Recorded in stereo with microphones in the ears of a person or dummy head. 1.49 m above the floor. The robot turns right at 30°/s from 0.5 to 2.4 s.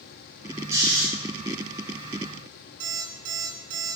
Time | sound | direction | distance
0.7 | snoring | 15° right (ahead or behind) | 3.5 m
2.8 | an alarm clock | 60° right (ahead or behind) | 1.5 m